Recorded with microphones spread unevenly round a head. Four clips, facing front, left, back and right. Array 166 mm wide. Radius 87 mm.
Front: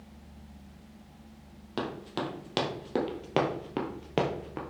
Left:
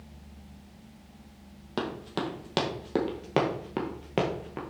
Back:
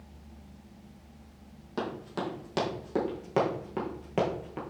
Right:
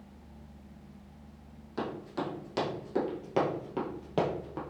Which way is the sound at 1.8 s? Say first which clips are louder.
Left 3 dB, even; 70° left.